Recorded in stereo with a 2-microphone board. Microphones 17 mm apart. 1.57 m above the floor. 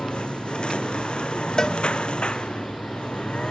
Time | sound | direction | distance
0.0 | a lawn mower | 85° left | ?
1.6 | a cowbell | 40° left (ahead or behind) | ?